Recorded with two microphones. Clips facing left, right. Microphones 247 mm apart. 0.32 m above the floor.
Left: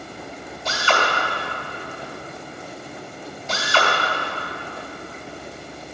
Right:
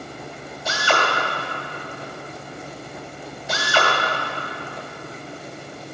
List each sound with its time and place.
0.7 s a drill: 10° right (ahead or behind), 1.9 m